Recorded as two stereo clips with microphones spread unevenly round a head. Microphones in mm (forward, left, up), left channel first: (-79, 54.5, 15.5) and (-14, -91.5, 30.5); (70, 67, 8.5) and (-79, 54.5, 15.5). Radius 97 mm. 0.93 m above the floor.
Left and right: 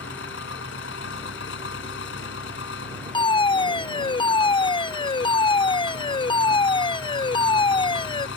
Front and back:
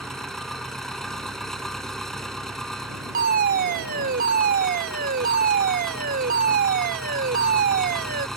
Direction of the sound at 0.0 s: 90° left.